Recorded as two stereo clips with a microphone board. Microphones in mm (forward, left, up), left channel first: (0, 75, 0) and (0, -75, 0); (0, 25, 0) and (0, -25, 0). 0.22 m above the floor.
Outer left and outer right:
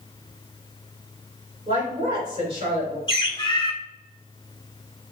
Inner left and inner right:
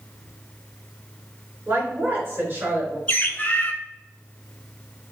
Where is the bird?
35° left (ahead or behind), 0.6 m.